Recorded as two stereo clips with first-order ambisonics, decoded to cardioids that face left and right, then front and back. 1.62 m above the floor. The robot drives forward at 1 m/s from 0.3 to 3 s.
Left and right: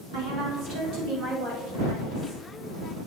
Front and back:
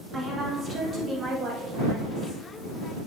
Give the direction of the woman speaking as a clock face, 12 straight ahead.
4 o'clock.